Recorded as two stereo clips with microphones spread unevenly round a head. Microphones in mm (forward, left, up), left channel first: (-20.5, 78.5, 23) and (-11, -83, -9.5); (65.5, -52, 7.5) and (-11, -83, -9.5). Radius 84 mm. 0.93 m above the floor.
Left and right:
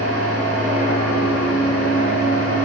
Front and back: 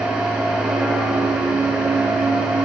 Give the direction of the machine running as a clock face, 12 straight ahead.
2 o'clock.